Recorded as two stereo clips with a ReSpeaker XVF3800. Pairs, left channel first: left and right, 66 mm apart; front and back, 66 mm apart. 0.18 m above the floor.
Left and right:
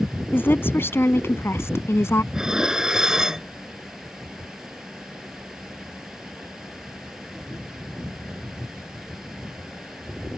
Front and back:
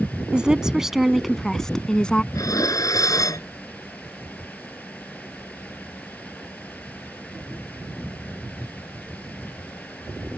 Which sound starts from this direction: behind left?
A woman speaking, at 0.3 s.